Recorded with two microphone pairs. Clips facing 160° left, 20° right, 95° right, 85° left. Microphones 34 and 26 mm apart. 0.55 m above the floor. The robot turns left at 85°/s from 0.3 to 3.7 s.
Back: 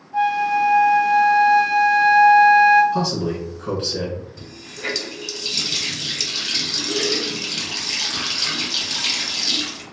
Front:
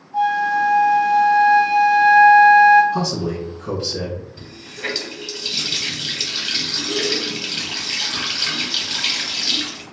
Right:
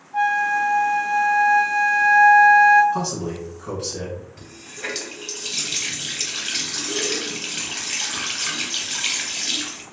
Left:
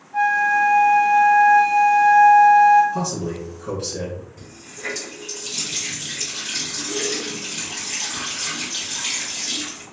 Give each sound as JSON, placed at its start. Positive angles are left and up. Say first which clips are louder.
{"t": 0.1, "sound": "a flute", "louder": "front 1 dB, left 2 dB", "azimuth_deg": 140, "distance_m": 1.6}
{"t": 2.9, "sound": "a man speaking", "louder": "even, even", "azimuth_deg": -110, "distance_m": 1.6}
{"t": 4.4, "sound": "a running tap", "louder": "front 2 dB, right 1 dB", "azimuth_deg": -85, "distance_m": 0.9}